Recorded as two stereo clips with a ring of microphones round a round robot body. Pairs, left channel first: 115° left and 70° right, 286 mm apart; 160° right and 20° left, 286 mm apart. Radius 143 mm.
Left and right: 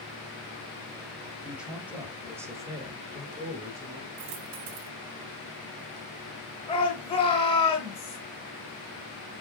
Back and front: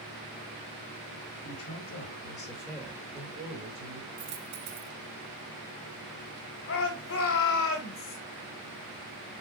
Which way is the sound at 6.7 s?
Straight behind.